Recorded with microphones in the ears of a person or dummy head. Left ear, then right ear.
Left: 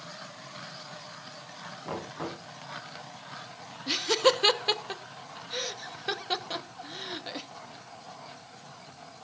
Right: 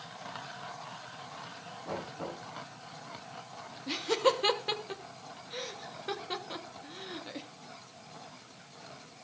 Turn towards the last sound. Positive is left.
turn(degrees=25)  # may be behind; listen again after turning